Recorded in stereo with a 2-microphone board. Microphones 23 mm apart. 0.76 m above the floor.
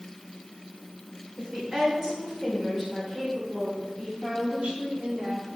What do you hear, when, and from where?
1.4 s a woman speaking: 25° right (ahead or behind), 2.5 m; by 4.1 s 10° left (ahead or behind), 3 m
4.2 s a woman speaking: 45° right (ahead or behind), 2.0 m